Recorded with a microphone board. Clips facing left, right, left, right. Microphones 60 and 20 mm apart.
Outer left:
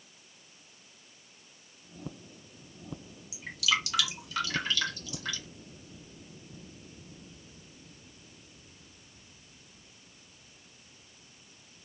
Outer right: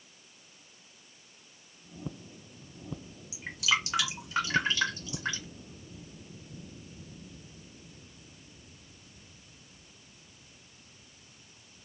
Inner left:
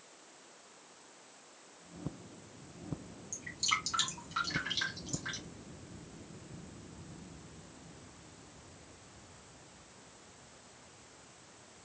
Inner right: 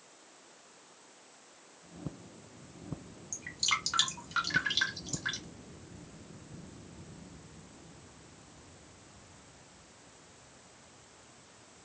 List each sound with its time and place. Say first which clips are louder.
3.3 s dripping: outer right 1 dB, inner right 2 dB; 25° right (ahead or behind), 1.3 m